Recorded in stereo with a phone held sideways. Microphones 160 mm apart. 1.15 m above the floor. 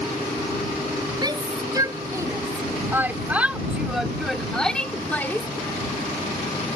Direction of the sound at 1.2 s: 25° right (ahead or behind).